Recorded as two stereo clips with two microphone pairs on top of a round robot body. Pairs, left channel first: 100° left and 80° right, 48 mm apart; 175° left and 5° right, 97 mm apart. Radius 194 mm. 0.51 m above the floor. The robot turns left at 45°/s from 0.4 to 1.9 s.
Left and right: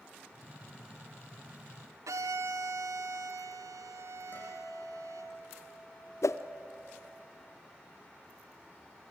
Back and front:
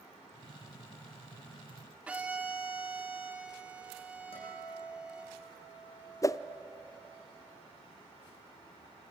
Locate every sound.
2.1 s a violin: 80° right, 0.5 m
4.3 s a guitar: 150° left, 9 m
6.2 s a whoosh: 120° left, 0.8 m